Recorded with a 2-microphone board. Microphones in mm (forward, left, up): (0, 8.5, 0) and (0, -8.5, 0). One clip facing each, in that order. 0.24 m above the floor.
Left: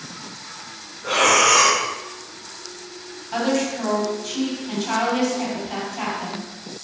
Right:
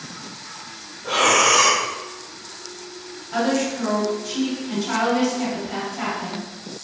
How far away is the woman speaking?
About 1.9 m.